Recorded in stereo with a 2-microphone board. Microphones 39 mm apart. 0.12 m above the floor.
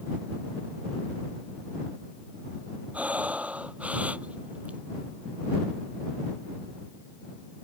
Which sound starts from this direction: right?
Breathing, at 2.9 s.